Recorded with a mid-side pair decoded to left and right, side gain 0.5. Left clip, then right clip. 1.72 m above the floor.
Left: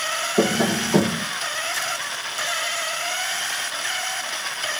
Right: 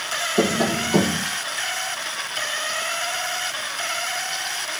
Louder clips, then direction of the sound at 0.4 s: Even; 5° left.